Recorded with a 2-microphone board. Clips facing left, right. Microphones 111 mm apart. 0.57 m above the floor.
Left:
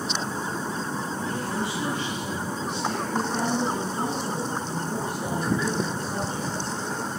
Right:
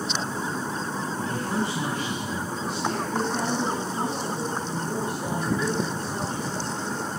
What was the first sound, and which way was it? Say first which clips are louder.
A man speaking: right 3 dB; 45° right (ahead or behind).